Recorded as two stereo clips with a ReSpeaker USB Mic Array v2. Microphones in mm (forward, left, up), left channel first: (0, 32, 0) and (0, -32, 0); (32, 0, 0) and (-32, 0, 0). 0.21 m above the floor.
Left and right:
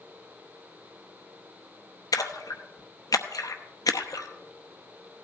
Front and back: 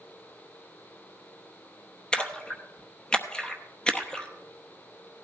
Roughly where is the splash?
Left.